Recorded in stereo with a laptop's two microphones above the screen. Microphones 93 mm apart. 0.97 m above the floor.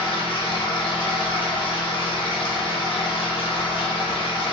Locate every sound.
0.0 s a machine running: 65° left (ahead or behind), 0.8 m